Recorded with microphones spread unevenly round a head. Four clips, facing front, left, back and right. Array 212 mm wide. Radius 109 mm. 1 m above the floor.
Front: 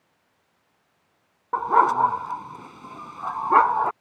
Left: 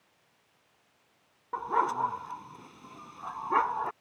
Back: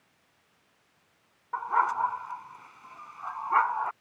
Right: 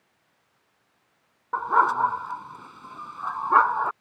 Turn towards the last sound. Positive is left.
turn(degrees=-5)